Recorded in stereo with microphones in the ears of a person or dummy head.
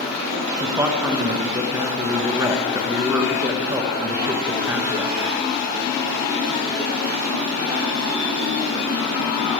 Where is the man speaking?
15° right (ahead or behind), 0.8 m.